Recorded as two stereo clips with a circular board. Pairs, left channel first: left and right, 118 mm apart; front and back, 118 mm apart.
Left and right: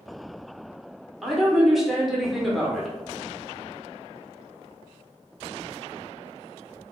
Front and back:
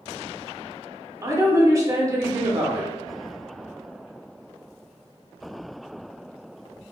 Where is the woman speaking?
175° right, 0.8 m.